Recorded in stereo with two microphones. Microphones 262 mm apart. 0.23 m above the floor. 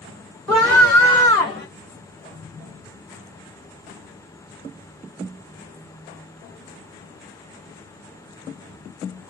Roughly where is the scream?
Right.